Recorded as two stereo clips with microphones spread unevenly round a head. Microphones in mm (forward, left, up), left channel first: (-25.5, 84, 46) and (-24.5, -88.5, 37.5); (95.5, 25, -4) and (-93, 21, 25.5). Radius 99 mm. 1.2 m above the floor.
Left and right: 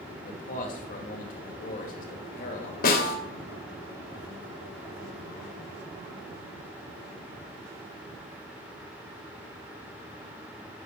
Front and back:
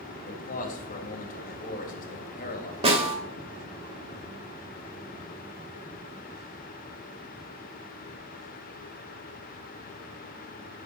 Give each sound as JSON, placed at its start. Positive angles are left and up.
{"t": 0.3, "sound": "a man speaking", "azimuth_deg": 45, "distance_m": 2.5}
{"t": 2.8, "sound": "a snare drum", "azimuth_deg": 125, "distance_m": 2.0}